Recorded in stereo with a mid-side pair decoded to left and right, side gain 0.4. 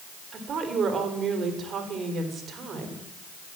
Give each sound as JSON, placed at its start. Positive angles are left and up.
{"t": 0.3, "sound": "a woman speaking", "azimuth_deg": -60, "distance_m": 3.5}